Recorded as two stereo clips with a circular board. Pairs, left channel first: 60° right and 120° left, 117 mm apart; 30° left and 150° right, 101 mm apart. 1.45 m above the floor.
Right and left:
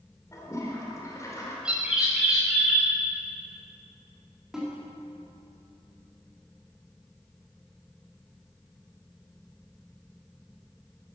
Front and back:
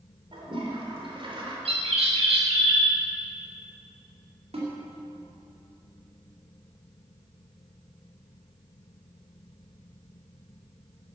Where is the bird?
160° right, 4 m.